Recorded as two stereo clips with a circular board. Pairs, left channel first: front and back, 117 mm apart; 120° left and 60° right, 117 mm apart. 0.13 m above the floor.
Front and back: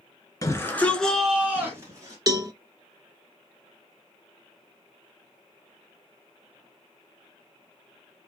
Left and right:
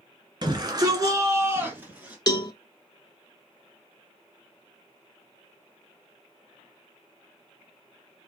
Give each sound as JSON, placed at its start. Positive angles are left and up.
{"t": 0.4, "sound": "a shout", "azimuth_deg": -45, "distance_m": 2.0}
{"t": 2.3, "sound": "a cowbell", "azimuth_deg": 145, "distance_m": 0.5}